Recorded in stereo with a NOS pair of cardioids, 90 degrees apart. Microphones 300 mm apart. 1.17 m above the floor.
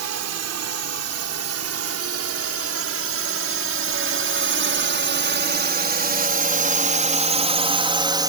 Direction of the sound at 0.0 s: 60° right.